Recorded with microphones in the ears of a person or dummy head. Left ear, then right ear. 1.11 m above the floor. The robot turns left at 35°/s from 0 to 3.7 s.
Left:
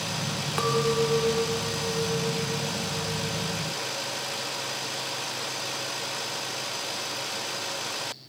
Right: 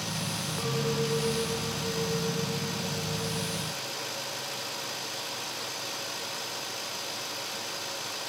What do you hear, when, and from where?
0.6 s a clink: 45° left; by 3.6 s 65° right